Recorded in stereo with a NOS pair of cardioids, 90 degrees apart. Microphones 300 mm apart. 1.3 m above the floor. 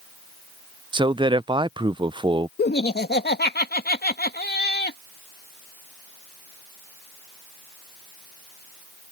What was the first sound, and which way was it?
A man speaking, 15° right.